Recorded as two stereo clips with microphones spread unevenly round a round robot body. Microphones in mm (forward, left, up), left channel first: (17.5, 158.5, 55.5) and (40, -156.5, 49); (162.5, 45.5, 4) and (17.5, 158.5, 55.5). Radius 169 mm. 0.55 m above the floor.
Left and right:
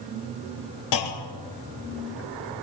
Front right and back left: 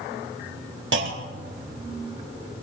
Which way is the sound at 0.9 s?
125° left.